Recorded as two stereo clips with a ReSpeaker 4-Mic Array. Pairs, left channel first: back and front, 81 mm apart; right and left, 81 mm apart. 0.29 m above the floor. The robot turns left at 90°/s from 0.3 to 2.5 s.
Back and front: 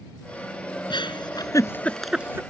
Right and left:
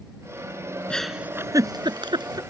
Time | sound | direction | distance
0.9 | a giggle | 165° right | ?